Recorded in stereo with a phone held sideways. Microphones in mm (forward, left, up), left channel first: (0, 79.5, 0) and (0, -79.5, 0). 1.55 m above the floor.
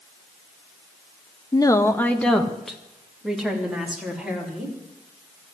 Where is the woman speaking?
25° left (ahead or behind), 0.9 m; by 4.8 s 5° right (ahead or behind), 4.5 m.